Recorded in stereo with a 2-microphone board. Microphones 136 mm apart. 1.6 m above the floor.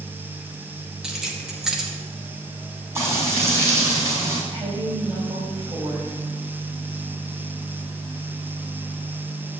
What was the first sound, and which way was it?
Keys jangling, 5° right (ahead or behind).